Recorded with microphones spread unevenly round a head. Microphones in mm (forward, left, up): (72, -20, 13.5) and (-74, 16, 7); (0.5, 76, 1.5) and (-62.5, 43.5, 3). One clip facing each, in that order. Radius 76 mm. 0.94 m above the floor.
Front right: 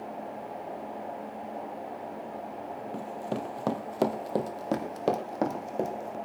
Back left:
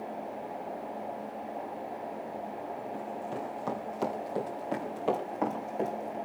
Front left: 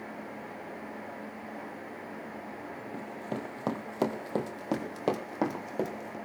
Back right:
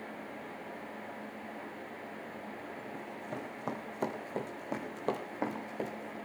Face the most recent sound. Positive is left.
turn(degrees=40)